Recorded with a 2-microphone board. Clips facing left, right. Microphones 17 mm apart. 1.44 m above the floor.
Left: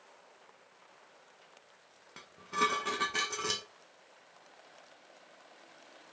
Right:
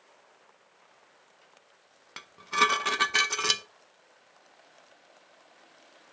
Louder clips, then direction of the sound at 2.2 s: Right 7 dB; 40° right (ahead or behind).